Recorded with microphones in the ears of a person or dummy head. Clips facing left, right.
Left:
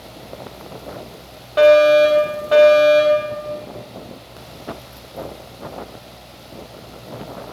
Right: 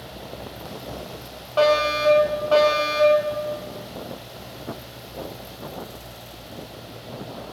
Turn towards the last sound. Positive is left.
turn(degrees=25)  # may be behind; listen again after turning